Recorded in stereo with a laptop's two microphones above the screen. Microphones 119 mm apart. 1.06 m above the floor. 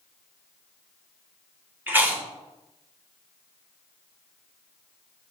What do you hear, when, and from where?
1.9 s chewing: 15° right (ahead or behind), 1.9 m